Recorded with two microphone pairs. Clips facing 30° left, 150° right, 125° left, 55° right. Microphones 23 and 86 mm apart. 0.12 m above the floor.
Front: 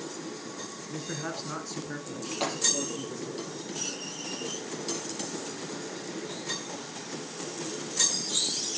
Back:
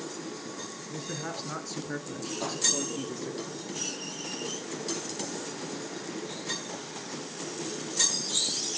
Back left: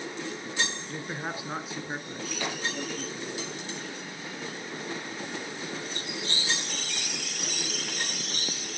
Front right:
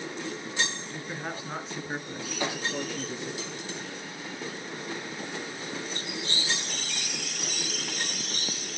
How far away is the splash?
About 2.5 m.